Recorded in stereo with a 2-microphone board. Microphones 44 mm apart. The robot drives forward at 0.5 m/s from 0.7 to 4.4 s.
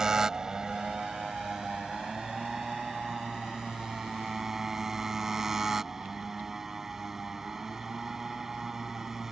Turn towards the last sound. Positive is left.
turn(degrees=-10)  # may be behind; listen again after turning